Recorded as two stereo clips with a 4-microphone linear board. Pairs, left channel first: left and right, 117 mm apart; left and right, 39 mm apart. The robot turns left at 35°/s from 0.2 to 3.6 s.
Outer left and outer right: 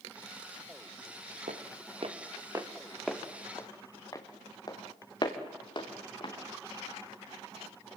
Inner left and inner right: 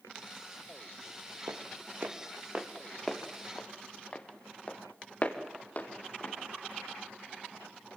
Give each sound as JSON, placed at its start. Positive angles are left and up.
{"t": 1.5, "sound": "footsteps", "side_deg": -85, "distance_m": 2.5}